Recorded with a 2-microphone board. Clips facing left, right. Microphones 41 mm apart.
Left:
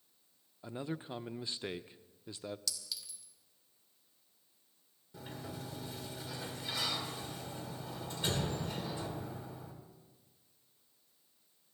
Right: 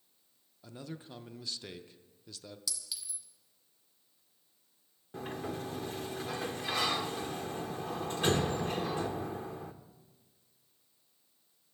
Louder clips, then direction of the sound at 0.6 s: Left 5 dB; 25° left (ahead or behind).